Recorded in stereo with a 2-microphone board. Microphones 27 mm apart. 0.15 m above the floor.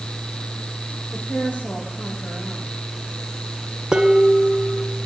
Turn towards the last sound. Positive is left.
turn(degrees=-30)  # may be behind; listen again after turning